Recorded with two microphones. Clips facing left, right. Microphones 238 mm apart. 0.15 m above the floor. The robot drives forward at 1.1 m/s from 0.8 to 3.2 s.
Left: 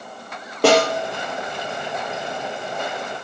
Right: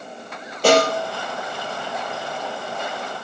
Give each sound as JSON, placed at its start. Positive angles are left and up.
{"t": 0.6, "sound": "a snare drum", "side_deg": 65, "distance_m": 3.5}